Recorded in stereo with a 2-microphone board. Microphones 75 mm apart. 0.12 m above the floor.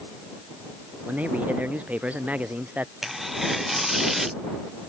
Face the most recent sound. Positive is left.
turn(degrees=0)  # may be behind; listen again after turning